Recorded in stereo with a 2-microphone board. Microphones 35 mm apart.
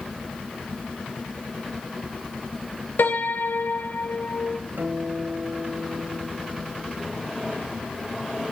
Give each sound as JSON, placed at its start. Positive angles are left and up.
{"t": 3.0, "sound": "a piano", "side_deg": 75, "distance_m": 3.5}
{"t": 4.8, "sound": "a guitar", "side_deg": -60, "distance_m": 6.0}